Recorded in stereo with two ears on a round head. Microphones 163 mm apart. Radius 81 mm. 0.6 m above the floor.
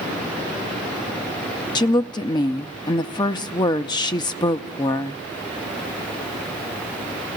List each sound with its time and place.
1.8 s a woman speaking: 20° left (ahead or behind), 0.6 m